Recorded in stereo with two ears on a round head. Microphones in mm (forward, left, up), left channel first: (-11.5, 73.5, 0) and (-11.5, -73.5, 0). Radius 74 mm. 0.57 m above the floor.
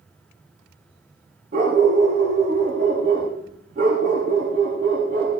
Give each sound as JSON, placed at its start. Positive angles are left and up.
{"t": 1.5, "sound": "a dog barking", "side_deg": -50, "distance_m": 10.0}